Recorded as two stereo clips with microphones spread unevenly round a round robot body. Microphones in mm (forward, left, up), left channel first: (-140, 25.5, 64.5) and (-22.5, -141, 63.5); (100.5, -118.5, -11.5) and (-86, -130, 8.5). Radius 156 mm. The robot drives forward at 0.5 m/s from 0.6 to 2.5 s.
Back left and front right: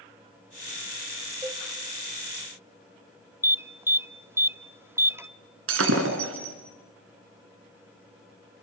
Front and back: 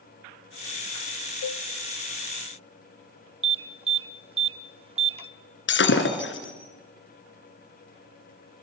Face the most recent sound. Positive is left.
turn(degrees=-15)